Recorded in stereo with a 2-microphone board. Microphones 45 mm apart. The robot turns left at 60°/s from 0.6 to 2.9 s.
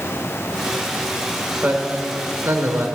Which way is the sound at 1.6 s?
45° right (ahead or behind).